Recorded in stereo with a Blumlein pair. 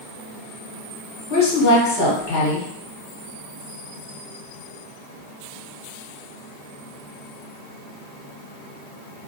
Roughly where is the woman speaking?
Ahead left.